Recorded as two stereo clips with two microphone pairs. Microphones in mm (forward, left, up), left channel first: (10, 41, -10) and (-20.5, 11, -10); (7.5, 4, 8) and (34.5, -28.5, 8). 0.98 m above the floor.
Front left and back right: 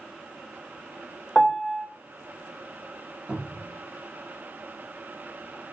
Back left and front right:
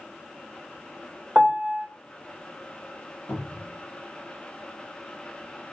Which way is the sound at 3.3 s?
160° left.